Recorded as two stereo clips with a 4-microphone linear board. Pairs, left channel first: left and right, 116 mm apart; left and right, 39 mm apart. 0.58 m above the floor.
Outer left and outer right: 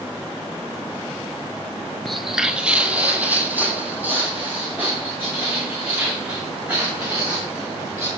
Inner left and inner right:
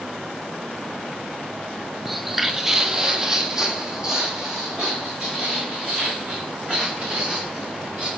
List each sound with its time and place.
2.0 s footsteps: 5° left (ahead or behind), 0.6 m; by 8.1 s 15° right (ahead or behind), 6 m